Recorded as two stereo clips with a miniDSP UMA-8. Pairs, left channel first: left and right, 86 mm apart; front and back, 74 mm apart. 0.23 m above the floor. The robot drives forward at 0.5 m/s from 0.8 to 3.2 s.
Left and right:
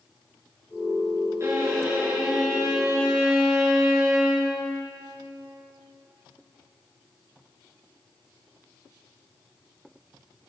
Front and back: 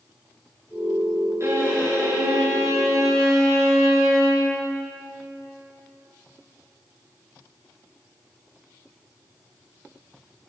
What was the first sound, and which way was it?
A violin, 140° right.